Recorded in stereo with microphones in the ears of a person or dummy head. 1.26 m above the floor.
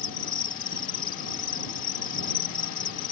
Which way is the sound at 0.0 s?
45° left (ahead or behind).